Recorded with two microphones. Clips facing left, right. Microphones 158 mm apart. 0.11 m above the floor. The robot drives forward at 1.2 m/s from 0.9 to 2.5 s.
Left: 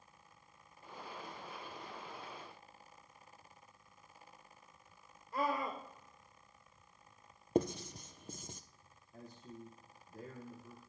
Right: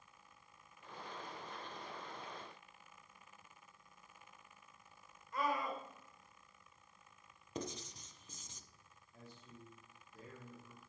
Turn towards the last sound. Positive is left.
turn(degrees=45)  # may be behind; listen again after turning